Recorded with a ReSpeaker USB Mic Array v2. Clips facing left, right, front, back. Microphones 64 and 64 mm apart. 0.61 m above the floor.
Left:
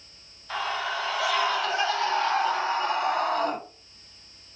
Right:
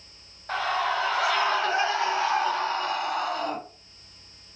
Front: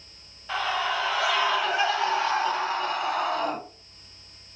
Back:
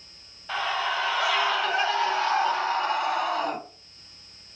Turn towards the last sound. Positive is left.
turn(degrees=90)